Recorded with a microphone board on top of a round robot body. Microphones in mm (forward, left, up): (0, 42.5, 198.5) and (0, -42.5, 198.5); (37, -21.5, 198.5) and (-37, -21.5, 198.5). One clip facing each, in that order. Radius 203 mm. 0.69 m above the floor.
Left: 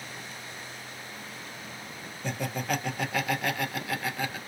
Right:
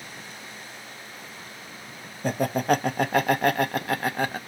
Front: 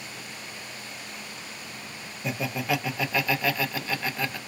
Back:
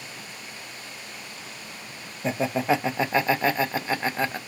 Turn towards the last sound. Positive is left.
turn(degrees=-125)